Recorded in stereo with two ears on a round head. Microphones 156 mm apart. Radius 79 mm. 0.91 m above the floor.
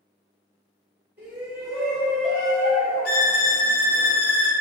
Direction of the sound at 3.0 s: 55° left (ahead or behind).